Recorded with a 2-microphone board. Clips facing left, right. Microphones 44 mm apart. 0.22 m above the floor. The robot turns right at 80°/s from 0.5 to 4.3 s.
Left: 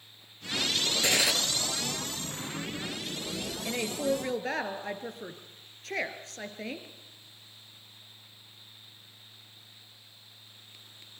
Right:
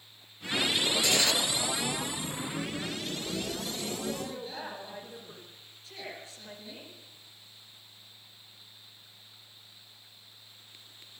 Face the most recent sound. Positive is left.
turn(degrees=105)